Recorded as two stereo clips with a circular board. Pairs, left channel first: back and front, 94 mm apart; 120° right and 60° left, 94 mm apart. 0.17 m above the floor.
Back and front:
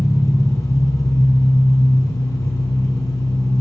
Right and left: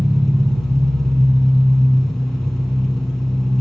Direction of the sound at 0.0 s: 150° left.